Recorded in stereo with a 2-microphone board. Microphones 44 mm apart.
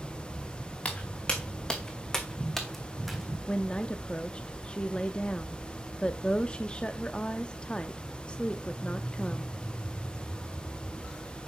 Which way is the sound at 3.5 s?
25° left (ahead or behind).